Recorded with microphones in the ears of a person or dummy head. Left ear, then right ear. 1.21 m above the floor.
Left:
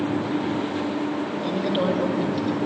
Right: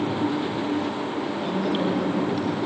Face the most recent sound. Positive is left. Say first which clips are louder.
# left 3 dB
turn(degrees=-15)  # may be behind; listen again after turning